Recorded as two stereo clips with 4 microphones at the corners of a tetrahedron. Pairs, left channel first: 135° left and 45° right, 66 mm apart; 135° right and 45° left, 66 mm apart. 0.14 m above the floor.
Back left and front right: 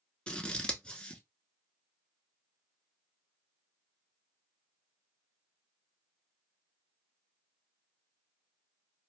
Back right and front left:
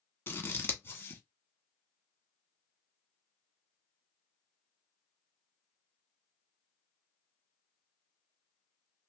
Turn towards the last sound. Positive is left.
turn(degrees=-160)